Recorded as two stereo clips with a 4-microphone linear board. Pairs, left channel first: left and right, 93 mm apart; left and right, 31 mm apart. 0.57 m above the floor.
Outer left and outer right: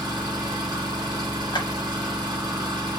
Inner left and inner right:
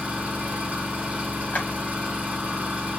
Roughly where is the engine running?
Right.